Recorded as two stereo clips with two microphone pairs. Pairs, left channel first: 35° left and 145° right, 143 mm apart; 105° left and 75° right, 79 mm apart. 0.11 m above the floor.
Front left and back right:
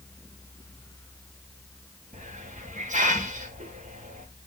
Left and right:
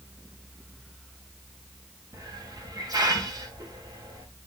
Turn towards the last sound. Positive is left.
turn(degrees=-115)